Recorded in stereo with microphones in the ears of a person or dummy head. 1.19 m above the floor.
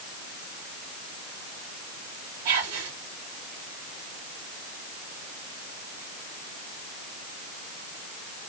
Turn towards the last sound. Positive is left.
turn(degrees=-90)